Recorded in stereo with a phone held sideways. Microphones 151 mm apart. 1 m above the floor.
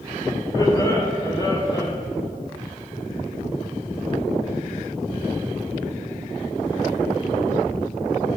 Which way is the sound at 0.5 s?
25° left (ahead or behind).